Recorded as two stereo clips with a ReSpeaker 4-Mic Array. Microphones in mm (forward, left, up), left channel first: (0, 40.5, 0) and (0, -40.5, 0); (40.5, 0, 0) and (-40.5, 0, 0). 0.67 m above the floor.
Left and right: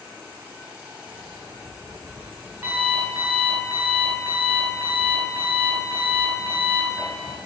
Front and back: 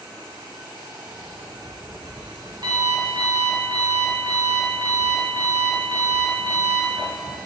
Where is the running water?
160° right, 4 m.